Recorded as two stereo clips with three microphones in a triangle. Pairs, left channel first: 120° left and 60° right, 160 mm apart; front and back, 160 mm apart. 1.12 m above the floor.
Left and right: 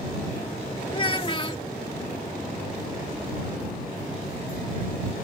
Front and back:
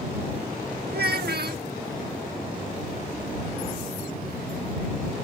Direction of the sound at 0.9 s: Straight behind.